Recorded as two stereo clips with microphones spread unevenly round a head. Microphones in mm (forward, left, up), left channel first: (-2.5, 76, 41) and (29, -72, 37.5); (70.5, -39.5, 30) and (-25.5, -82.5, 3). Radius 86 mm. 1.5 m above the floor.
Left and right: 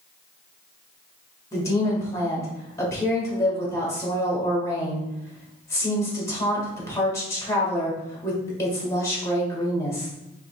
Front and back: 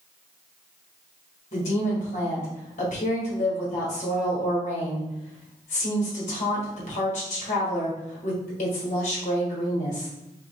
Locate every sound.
1.5 s a woman speaking: 30° left, 1.6 m